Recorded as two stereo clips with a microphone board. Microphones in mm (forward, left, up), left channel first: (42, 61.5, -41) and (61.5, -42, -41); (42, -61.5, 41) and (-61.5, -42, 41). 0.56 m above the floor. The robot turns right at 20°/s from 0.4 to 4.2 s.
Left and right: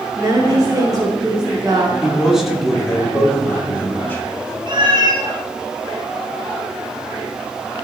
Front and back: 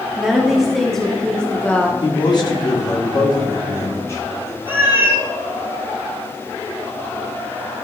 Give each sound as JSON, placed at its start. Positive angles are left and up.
{"t": 0.2, "sound": "a woman speaking", "azimuth_deg": -105, "distance_m": 1.0}
{"t": 2.0, "sound": "a man speaking", "azimuth_deg": -5, "distance_m": 1.5}
{"t": 4.7, "sound": "a cat meowing", "azimuth_deg": -120, "distance_m": 1.6}